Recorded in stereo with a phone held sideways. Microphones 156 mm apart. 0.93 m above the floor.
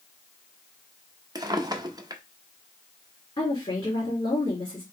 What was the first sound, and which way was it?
A drawer, 25° right (ahead or behind).